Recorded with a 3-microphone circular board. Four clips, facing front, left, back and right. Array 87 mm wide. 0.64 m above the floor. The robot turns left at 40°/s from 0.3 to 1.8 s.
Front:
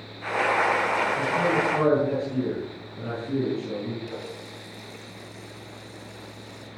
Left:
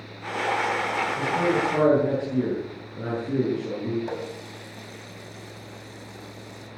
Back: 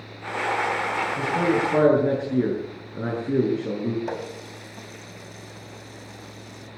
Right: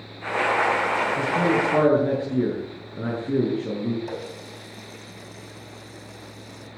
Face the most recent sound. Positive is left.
turn(degrees=180)